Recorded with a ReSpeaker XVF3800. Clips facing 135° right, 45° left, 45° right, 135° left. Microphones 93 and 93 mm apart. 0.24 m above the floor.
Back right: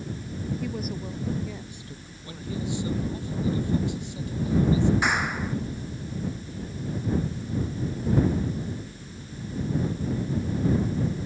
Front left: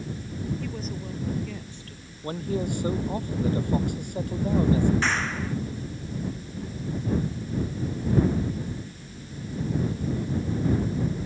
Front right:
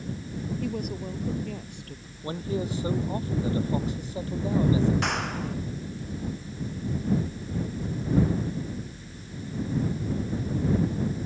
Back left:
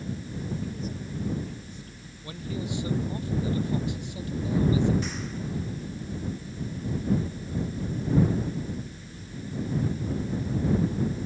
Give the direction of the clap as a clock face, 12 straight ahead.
2 o'clock.